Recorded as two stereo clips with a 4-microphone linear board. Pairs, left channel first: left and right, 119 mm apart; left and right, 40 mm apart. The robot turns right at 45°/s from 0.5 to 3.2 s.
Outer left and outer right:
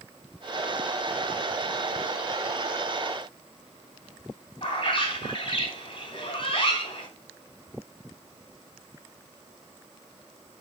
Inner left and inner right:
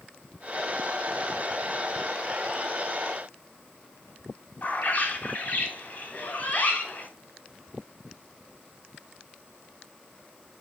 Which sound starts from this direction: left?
A bird, at 4.6 s.